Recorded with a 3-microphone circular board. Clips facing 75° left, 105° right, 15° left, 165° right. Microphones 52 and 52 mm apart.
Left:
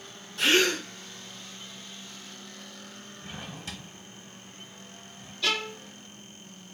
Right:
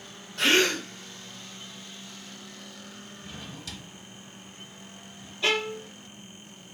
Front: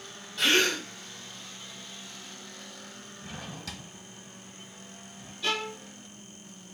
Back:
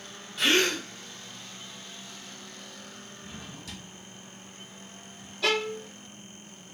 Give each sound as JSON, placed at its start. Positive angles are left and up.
{"t": 0.4, "sound": "a gasp", "azimuth_deg": -75, "distance_m": 2.0}
{"t": 3.2, "sound": "a drawer", "azimuth_deg": 15, "distance_m": 0.8}
{"t": 5.4, "sound": "a violin", "azimuth_deg": -170, "distance_m": 0.6}